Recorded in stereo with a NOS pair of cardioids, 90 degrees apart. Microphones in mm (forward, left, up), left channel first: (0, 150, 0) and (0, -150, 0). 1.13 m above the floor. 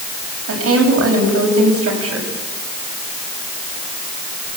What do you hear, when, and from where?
0.5 s a woman speaking: 50° right, 8 m